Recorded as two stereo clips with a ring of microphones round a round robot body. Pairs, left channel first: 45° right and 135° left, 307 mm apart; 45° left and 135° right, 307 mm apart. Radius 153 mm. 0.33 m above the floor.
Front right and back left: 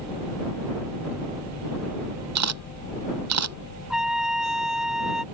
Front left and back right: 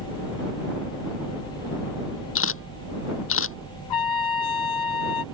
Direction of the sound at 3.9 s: 45° left.